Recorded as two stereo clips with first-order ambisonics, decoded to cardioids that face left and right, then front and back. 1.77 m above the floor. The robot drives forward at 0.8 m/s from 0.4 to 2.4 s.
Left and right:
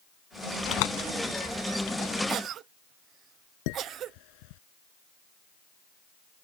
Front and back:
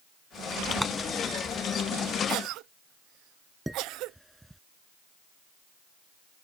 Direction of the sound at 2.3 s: 140° right.